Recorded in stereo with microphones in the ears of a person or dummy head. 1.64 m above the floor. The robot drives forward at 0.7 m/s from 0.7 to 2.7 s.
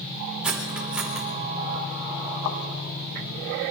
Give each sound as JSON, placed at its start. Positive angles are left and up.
{"t": 0.4, "sound": "cutlery clinking", "side_deg": -5, "distance_m": 3.5}